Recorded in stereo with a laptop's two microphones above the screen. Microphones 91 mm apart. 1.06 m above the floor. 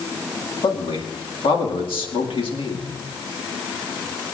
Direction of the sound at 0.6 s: 75° left (ahead or behind).